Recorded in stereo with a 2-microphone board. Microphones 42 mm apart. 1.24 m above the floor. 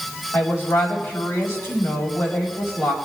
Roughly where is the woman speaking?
Left.